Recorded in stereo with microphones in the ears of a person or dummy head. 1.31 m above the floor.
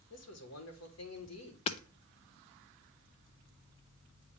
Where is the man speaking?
70° left (ahead or behind), 1.6 m.